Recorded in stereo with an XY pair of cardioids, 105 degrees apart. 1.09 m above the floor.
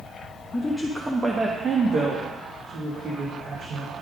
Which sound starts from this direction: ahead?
A woman speaking, at 0.5 s.